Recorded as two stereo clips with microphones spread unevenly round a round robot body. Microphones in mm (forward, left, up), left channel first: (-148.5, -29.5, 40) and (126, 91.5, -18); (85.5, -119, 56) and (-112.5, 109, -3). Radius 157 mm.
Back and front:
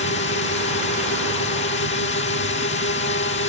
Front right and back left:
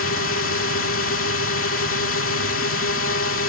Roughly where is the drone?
Right.